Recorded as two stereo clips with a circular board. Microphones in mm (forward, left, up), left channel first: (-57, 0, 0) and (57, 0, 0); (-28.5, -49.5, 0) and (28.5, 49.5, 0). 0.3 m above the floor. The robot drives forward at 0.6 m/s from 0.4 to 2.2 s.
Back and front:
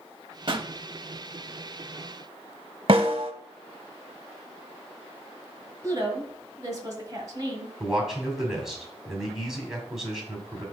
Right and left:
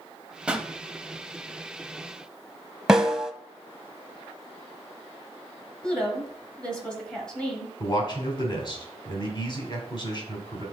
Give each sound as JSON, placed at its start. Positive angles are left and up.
{"t": 0.5, "sound": "a pop", "azimuth_deg": -20, "distance_m": 0.6}
{"t": 2.9, "sound": "a snare drum", "azimuth_deg": -25, "distance_m": 0.7}
{"t": 5.8, "sound": "a woman speaking", "azimuth_deg": -40, "distance_m": 1.8}
{"t": 7.8, "sound": "a man speaking", "azimuth_deg": -85, "distance_m": 2.0}